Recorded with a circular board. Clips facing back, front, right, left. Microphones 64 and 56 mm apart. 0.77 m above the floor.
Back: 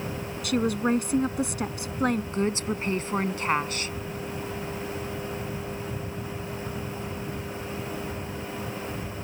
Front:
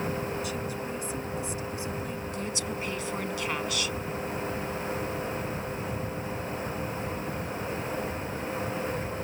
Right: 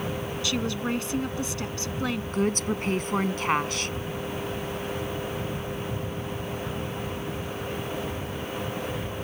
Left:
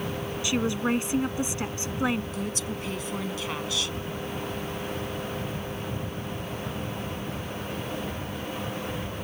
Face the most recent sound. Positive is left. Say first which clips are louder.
# back 6 dB, right 6 dB
turn(degrees=-130)